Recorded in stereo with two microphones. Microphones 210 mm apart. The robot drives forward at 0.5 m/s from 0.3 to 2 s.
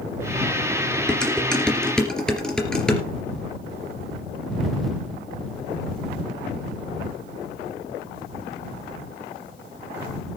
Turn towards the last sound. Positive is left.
turn(degrees=5)  # may be behind; listen again after turning